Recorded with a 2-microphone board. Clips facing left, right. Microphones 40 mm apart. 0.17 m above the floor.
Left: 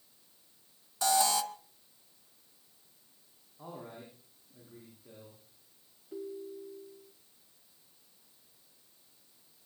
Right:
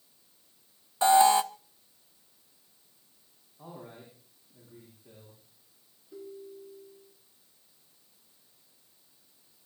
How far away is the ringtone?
About 3.5 m.